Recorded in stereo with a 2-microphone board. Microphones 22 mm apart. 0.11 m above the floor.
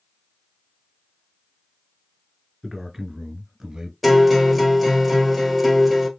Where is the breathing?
I don't hear breathing.